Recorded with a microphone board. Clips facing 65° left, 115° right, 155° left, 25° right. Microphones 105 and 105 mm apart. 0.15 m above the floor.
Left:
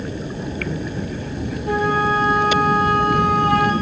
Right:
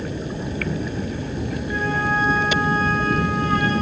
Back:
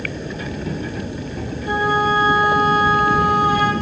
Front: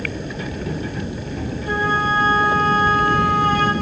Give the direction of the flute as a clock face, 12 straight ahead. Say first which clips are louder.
Left 6 dB, back 3 dB; 9 o'clock.